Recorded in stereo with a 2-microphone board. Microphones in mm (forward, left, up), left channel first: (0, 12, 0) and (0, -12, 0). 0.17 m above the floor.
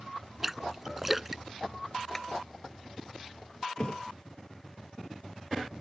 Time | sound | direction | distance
0.4 | a splash | 10° right (ahead or behind) | ?
2.1 | tapping | 15° left (ahead or behind) | ?
3.8 | a thud | 40° left (ahead or behind) | ?